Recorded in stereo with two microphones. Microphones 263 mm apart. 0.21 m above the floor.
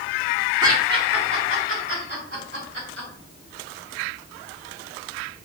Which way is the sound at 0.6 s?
15° right (ahead or behind).